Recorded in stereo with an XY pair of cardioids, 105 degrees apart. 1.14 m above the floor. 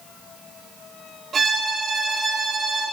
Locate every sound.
1.3 s a violin: 40° right, 5.5 m